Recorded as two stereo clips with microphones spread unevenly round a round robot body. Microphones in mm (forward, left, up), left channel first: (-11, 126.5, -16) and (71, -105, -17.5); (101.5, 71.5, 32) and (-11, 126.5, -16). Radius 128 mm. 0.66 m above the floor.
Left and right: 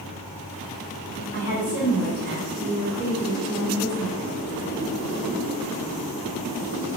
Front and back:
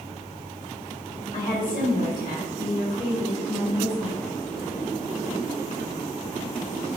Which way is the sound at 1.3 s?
30° right.